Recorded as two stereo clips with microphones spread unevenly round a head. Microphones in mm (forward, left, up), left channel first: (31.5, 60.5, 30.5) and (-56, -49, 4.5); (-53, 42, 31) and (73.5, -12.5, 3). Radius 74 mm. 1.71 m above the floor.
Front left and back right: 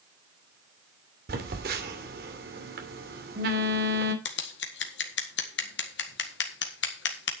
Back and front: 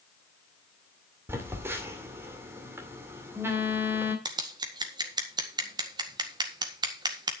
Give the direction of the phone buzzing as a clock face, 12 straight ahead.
3 o'clock.